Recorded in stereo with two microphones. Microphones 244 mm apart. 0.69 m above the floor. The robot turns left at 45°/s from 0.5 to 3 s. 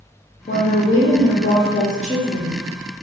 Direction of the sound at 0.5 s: 105° left.